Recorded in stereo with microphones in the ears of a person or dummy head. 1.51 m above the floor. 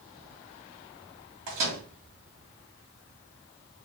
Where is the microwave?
35° right (ahead or behind), 2.5 m.